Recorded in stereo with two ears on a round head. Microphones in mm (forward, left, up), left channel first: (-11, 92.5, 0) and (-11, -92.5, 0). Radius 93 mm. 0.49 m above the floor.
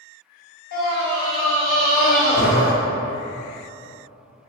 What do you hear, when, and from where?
0.7 s a scream: 45° left (ahead or behind), 1.0 m; by 2.7 s 40° left (ahead or behind), 3.5 m